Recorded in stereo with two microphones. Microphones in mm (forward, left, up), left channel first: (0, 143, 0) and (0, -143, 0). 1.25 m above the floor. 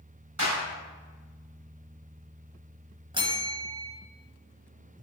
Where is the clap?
80° right, 3 m.